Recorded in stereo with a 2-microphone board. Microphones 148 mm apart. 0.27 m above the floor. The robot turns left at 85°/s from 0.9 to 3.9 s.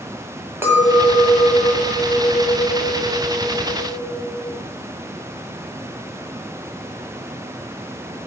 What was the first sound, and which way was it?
A clink, 155° right.